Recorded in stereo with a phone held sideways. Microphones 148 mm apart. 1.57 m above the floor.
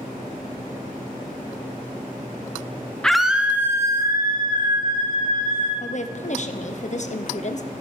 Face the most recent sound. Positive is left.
turn(degrees=55)  # may be behind; listen again after turning